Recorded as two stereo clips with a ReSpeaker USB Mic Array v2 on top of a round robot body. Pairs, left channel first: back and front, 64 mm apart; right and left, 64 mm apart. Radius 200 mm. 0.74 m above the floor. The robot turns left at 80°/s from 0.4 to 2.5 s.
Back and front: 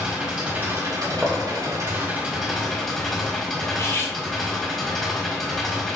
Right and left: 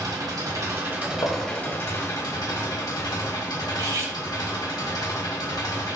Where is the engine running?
70° left, 1.9 m; by 6.0 s 95° right, 1.9 m.